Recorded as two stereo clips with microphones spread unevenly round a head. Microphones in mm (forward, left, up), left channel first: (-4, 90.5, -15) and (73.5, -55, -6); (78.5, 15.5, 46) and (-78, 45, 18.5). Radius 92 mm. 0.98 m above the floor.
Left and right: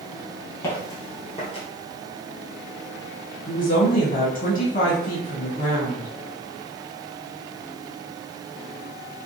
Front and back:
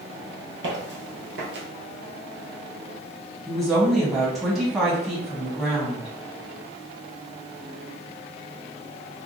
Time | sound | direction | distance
0.6 | footsteps | 170° right | 1.5 m
3.5 | a woman speaking | 90° left | 1.2 m